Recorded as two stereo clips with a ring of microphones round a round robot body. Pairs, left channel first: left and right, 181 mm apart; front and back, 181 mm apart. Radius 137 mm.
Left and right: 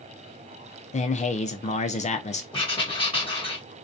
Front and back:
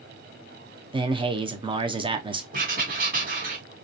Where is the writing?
150° left, 1.6 m.